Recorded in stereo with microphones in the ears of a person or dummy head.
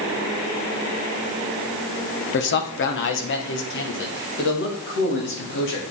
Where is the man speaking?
55° left (ahead or behind), 0.9 m; by 5.8 s 60° left (ahead or behind), 3.5 m.